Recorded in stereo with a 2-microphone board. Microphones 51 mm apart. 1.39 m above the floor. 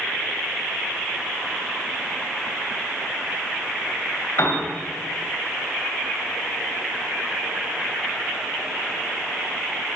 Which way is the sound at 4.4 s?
70° left (ahead or behind).